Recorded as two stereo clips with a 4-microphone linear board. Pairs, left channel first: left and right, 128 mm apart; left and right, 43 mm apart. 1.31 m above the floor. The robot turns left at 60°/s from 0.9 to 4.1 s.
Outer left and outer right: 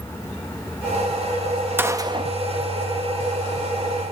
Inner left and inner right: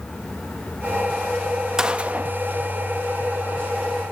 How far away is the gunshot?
About 1.4 m.